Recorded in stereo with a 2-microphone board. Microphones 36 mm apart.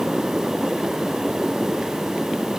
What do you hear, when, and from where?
Only background noise.